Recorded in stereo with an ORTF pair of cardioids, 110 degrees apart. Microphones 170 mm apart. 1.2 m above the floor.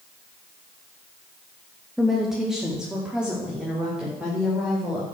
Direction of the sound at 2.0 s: Straight ahead.